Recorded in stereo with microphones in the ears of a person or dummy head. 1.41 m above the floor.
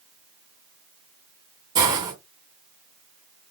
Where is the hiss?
20° right (ahead or behind), 1.2 m.